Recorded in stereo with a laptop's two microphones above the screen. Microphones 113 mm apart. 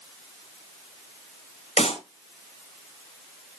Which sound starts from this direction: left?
A clap, at 1.8 s.